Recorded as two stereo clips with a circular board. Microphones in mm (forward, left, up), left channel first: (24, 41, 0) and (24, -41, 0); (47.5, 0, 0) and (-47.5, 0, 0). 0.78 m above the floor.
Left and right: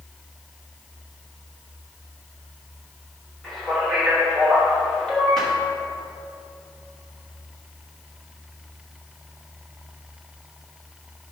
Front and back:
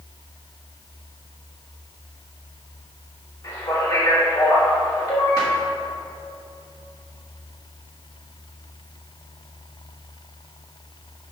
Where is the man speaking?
5° left, 1.3 m.